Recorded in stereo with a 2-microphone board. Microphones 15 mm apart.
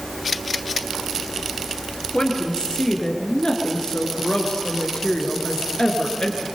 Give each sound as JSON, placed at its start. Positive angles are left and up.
{"t": 2.1, "sound": "a woman speaking", "side_deg": 75, "distance_m": 4.0}